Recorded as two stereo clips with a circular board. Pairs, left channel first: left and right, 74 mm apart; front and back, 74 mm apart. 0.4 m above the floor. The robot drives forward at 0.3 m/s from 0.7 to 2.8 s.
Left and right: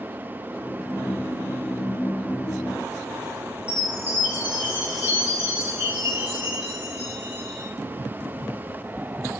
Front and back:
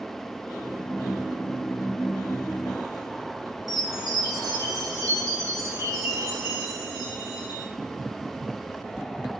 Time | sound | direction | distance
3.7 | a chime | 155° right | 1.3 m